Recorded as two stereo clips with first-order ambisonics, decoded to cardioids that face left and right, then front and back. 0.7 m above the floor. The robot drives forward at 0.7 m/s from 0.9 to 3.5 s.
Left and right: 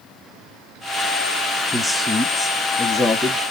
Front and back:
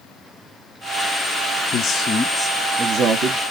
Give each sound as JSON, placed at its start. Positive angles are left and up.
{"t": 1.7, "sound": "a man speaking", "azimuth_deg": 0, "distance_m": 0.8}